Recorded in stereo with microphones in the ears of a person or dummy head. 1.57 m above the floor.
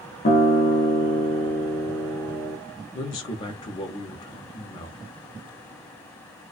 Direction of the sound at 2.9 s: 20° left (ahead or behind).